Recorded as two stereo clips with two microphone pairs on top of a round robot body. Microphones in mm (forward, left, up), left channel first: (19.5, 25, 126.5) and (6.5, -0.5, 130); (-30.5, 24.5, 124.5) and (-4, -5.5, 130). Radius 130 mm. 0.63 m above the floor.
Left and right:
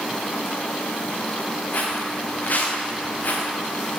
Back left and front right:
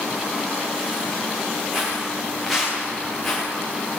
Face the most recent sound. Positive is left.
turn(degrees=45)